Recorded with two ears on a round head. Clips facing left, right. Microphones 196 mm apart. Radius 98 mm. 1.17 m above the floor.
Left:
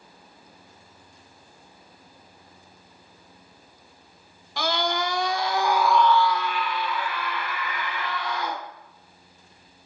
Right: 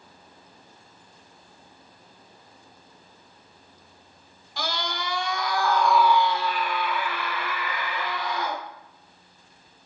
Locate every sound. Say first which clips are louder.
4.6 s a scream: left 6 dB; 50° left (ahead or behind), 1.4 m; by 8.6 s 75° right (ahead or behind), 2.5 m